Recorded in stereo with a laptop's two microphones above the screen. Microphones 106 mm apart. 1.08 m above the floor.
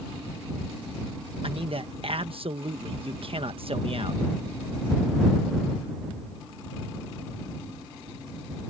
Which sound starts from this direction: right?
A man speaking, at 1.4 s.